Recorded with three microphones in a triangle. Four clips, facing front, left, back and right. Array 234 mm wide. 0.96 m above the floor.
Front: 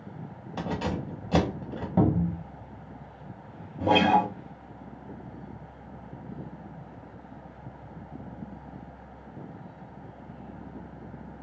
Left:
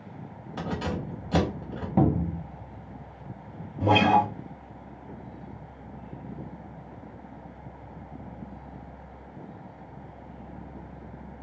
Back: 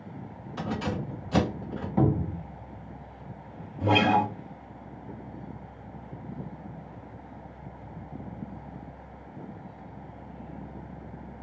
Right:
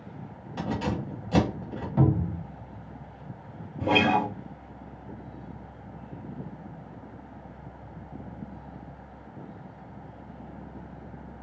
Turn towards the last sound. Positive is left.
turn(degrees=30)